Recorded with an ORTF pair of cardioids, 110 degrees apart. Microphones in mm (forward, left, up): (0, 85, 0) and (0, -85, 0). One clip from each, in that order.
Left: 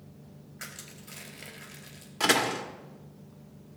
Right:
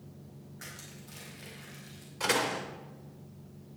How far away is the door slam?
About 1.5 m.